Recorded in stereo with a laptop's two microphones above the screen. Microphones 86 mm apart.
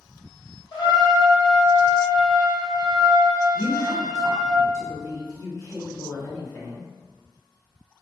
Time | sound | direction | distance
0.7 | a trumpet | 55° left (ahead or behind) | 1.8 m
3.5 | a woman speaking | 40° left (ahead or behind) | 1.5 m